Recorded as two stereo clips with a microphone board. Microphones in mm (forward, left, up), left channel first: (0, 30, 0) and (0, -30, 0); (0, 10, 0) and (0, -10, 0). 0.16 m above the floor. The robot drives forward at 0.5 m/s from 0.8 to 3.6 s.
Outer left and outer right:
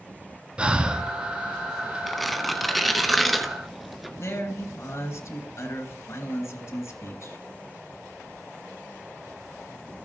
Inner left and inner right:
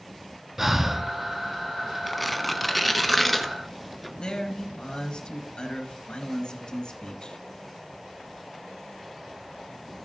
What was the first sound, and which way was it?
Breathing, 15° right (ahead or behind).